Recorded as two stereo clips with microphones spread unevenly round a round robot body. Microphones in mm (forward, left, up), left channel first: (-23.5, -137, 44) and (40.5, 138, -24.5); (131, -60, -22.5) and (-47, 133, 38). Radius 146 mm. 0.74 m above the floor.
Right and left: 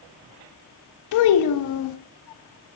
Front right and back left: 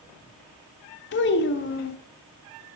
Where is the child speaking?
75° right, 0.5 m.